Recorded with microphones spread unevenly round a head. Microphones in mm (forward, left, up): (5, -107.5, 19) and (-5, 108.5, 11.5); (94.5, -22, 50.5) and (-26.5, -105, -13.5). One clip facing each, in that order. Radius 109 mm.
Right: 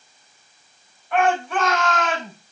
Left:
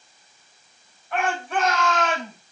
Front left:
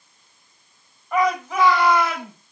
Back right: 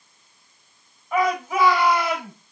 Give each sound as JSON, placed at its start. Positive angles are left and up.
{"t": 1.1, "sound": "a shout", "azimuth_deg": -60, "distance_m": 6.0}